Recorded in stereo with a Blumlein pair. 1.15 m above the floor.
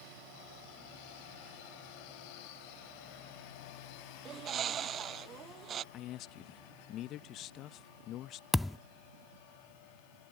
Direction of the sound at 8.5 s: 5° left.